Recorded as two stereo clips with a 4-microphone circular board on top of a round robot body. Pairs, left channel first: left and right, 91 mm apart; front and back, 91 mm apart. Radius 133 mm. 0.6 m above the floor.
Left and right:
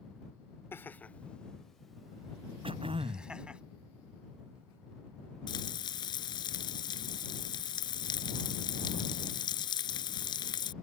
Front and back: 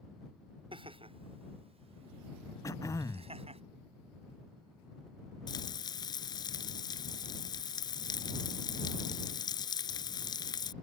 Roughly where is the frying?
Ahead left.